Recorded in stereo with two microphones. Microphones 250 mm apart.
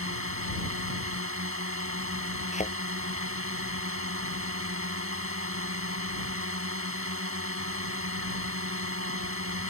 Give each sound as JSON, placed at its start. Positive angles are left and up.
{"t": 0.0, "sound": "a drone", "side_deg": -55}
{"t": 2.5, "sound": "a thud", "side_deg": 25}